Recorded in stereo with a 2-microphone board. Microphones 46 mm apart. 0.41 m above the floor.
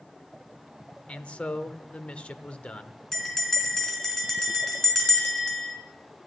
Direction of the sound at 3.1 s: 10° left (ahead or behind).